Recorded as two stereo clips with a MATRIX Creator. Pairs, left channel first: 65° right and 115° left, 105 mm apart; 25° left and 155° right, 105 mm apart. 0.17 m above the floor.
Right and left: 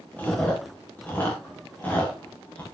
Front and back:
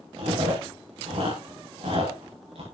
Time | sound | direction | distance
0.2 | chewing | 140° right | 9.5 m